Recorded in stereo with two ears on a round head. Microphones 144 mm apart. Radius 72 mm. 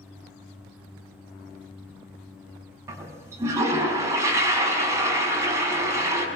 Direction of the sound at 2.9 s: 20° right (ahead or behind).